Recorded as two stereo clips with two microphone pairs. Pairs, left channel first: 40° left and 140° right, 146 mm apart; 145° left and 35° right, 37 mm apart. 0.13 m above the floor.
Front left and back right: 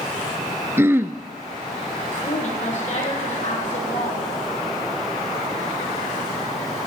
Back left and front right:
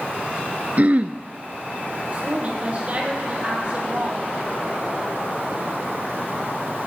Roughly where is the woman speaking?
Ahead.